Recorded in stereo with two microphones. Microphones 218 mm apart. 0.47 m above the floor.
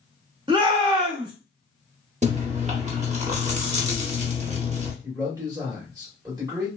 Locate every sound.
0.5 s a shout: 20° right (ahead or behind), 0.8 m
2.2 s chewing: 35° right (ahead or behind), 0.8 m
5.0 s a man speaking: 15° right (ahead or behind), 1.5 m